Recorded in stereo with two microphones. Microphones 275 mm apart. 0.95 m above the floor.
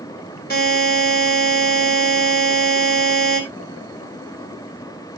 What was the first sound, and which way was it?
A buzzer, 35° left (ahead or behind).